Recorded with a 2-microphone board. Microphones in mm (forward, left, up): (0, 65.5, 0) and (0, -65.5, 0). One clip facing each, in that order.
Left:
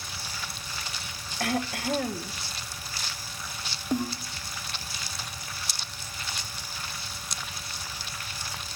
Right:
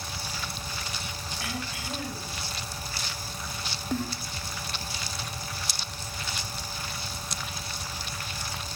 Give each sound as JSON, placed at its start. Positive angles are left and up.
{"t": 1.4, "sound": "throat clearing", "side_deg": 60, "distance_m": 1.2}
{"t": 3.9, "sound": "a snare drum", "side_deg": 15, "distance_m": 1.6}